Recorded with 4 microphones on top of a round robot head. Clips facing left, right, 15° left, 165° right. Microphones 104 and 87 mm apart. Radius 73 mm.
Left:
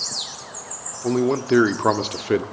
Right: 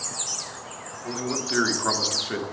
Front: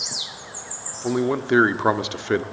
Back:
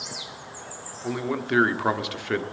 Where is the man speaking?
75° left, 1.0 m.